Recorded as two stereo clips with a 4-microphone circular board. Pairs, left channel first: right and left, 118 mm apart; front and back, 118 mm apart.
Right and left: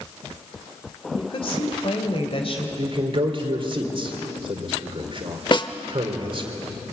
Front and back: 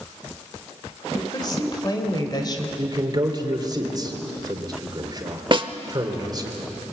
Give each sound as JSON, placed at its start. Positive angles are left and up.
{"t": 1.2, "sound": "a woman speaking", "azimuth_deg": -50, "distance_m": 2.5}
{"t": 2.8, "sound": "a man speaking", "azimuth_deg": 130, "distance_m": 3.5}
{"t": 5.5, "sound": "a snare drum", "azimuth_deg": -135, "distance_m": 0.8}